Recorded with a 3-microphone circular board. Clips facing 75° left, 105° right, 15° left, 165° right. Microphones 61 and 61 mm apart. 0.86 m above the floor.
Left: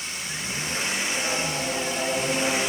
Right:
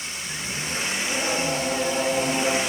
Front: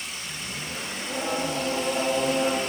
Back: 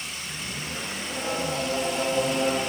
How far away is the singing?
About 6.5 m.